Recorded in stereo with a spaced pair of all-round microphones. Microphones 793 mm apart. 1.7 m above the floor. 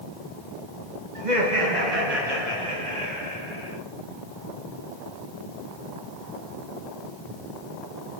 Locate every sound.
1.1 s laughter: 65° right (ahead or behind), 2.0 m; by 3.8 s 35° right (ahead or behind), 3.5 m